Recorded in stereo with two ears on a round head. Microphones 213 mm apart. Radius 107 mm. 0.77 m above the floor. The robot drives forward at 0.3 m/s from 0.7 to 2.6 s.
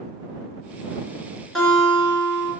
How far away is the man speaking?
No man speaking in this recording.